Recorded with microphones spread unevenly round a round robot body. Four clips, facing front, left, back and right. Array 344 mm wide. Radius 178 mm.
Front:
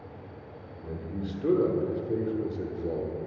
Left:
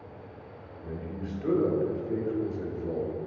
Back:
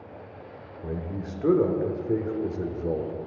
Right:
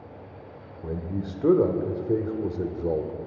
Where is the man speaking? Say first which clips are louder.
Right 6 dB, back 2 dB; 110° right, 1.1 m.